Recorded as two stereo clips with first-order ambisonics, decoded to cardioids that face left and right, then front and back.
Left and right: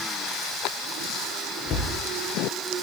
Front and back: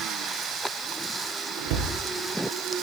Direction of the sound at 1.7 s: 155° left.